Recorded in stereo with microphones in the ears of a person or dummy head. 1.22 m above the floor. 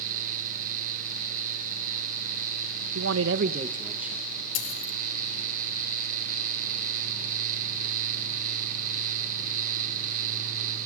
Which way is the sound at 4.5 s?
85° left.